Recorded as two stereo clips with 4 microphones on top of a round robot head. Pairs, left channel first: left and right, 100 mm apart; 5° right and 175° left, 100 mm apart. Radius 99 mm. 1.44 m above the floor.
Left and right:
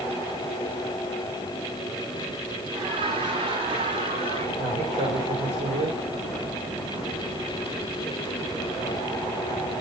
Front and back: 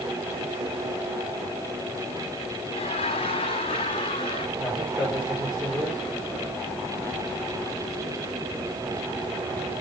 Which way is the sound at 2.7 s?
40° right.